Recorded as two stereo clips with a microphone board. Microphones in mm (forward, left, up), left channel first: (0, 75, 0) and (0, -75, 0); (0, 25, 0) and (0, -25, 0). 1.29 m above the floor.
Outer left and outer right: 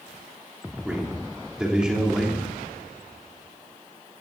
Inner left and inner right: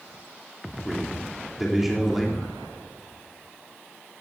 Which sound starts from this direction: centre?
A man speaking, at 0.8 s.